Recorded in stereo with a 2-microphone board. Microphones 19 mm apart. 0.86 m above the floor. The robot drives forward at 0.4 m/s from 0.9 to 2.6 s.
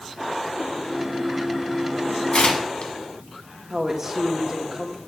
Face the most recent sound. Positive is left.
turn(degrees=-20)  # may be behind; listen again after turning